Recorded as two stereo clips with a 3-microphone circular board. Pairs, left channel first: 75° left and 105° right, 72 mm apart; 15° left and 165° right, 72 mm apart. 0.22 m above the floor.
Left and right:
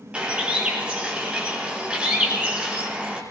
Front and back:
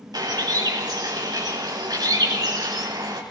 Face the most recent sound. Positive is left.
turn(degrees=180)